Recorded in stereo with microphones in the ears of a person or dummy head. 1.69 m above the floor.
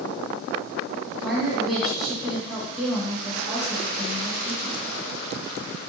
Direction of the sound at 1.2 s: 5° right (ahead or behind).